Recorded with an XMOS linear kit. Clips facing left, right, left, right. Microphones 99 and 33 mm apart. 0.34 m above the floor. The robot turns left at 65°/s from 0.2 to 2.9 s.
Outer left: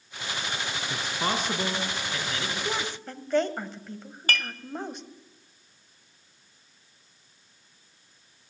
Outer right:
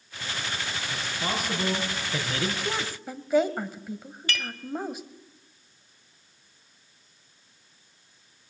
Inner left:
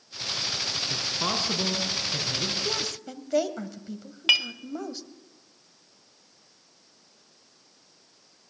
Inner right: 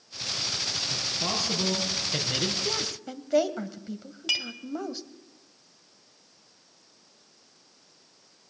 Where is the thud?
I don't hear a thud.